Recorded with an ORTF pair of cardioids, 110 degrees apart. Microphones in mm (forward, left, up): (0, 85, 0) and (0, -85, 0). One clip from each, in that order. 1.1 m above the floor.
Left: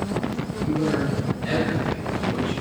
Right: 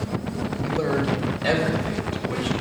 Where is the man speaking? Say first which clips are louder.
Even; 70° right, 6 m; by 2.5 s 80° right, 5.5 m.